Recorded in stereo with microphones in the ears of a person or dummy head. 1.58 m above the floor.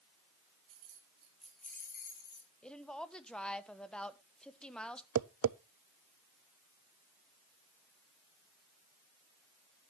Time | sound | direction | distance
0.7 | keys jangling | 25° right (ahead or behind) | 1.6 m
2.6 | a woman speaking | 5° left (ahead or behind) | 1.2 m
5.2 | tapping | 80° right | 0.6 m